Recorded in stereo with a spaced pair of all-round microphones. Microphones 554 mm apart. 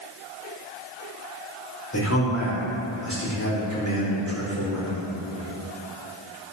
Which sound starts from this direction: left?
A man speaking, at 1.9 s.